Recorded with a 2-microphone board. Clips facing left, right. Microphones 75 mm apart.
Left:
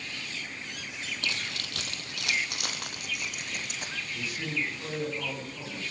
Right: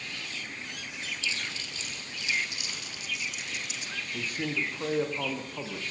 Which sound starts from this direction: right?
A man speaking, at 4.1 s.